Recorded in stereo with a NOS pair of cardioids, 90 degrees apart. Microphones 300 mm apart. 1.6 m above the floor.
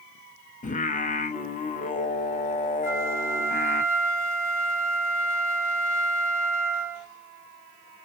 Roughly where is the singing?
Ahead left.